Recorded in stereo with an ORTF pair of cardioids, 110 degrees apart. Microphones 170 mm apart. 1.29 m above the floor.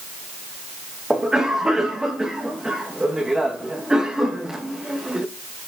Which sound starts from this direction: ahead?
A cough, at 1.1 s.